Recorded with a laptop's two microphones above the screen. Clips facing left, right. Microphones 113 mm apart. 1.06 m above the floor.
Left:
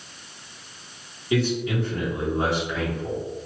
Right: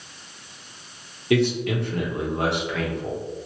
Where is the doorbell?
I don't hear a doorbell.